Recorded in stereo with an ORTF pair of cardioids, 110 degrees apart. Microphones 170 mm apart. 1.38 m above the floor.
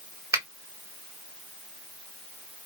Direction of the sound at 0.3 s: 20° right.